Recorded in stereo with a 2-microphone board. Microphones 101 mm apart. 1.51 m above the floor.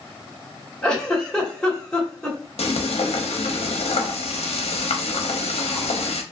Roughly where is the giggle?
Centre.